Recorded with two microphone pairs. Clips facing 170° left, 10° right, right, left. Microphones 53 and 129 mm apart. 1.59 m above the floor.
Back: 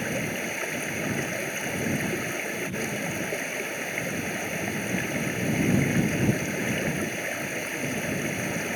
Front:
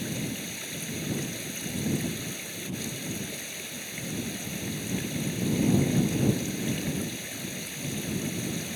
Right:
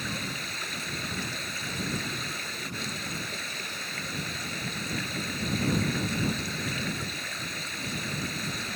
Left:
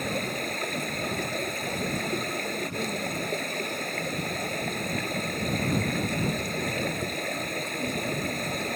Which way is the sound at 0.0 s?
125° left.